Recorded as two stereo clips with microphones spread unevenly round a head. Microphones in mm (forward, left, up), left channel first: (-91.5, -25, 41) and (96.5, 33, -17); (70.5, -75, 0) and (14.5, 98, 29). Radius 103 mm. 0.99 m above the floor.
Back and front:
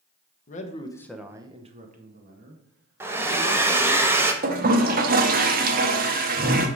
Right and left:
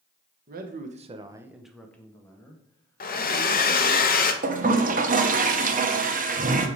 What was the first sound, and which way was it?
A man speaking, 140° left.